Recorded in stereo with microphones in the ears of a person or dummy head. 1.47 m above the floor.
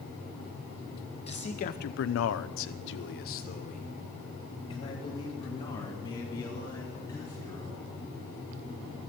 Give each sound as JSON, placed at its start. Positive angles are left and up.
{"t": 1.3, "sound": "a man speaking", "side_deg": 30, "distance_m": 1.0}